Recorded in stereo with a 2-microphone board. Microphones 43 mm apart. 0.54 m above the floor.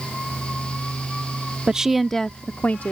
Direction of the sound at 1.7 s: 20° right (ahead or behind).